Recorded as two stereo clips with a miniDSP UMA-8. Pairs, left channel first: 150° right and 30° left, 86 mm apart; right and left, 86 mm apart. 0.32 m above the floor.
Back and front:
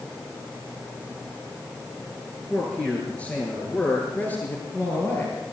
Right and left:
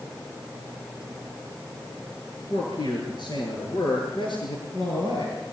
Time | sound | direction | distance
2.5 | a man speaking | 70° right | 6 m